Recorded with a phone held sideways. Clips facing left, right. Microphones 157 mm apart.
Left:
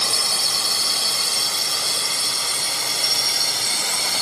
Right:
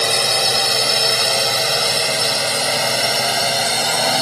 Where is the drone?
65° right (ahead or behind); by 4.2 s 60° right (ahead or behind).